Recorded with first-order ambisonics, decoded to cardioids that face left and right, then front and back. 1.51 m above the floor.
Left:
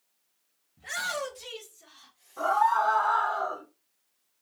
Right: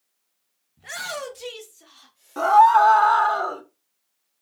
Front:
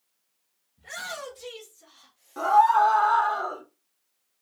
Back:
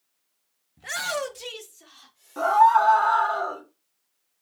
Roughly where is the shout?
Behind.